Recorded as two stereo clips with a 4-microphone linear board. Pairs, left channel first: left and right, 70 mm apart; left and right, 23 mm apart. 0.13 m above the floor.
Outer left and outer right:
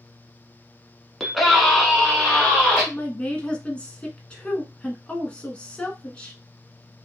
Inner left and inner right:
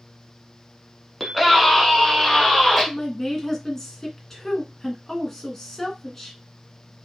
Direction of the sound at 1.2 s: Centre (ahead or behind).